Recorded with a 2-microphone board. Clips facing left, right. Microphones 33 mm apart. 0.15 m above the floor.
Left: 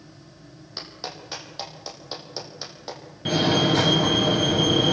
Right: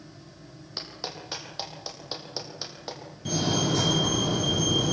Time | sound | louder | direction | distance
0.8 | a clap | left 1 dB | 5° right (ahead or behind) | 5.5 m
3.2 | a fire alarm | left 6 dB | 45° left (ahead or behind) | 3.5 m